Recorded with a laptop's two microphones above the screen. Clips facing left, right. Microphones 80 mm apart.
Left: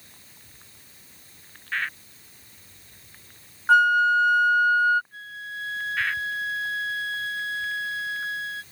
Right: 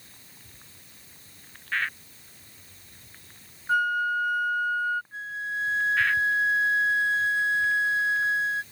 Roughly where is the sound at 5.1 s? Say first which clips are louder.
Right 5 dB; right.